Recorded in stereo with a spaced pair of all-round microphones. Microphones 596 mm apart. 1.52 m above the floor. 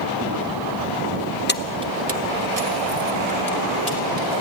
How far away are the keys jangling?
About 0.6 m.